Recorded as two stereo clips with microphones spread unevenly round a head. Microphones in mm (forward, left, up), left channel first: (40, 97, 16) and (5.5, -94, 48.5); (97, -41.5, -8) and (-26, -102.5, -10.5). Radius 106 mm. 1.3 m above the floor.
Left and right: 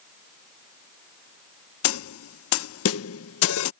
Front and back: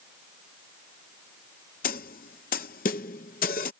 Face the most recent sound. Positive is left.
turn(degrees=75)